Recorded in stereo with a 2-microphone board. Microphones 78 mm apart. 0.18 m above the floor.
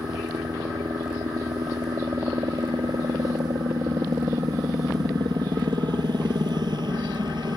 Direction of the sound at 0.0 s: 70° right (ahead or behind).